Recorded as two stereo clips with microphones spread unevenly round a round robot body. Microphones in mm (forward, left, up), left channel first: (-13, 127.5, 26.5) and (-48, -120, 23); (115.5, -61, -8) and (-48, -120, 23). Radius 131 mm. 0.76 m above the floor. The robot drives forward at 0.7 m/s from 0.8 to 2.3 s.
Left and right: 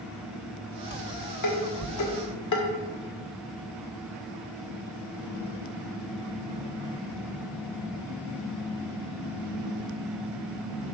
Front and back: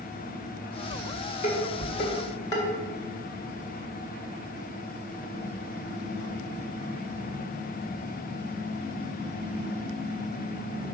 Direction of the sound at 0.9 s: 65° left.